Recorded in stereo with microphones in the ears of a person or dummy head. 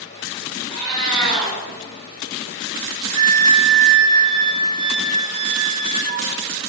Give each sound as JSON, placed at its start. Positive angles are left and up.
{"t": 0.7, "sound": "a cat meowing", "side_deg": 0, "distance_m": 1.2}
{"t": 3.1, "sound": "a flute", "side_deg": -25, "distance_m": 0.6}